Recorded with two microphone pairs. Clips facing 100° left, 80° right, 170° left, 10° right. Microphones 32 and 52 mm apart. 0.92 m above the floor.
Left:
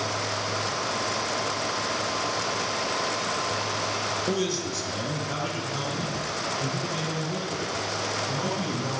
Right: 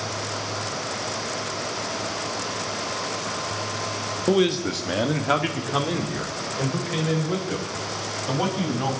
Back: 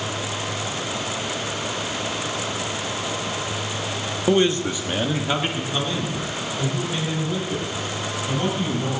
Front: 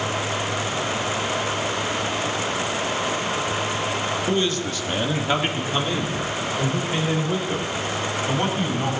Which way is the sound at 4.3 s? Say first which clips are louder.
Right 6 dB, back 8 dB; 140° right.